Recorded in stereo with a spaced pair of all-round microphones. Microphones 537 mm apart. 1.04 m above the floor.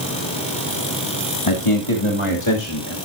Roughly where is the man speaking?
Left.